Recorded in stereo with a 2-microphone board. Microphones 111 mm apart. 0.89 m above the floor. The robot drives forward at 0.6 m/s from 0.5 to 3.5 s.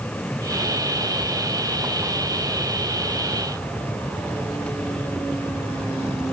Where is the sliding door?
No sliding door in this recording.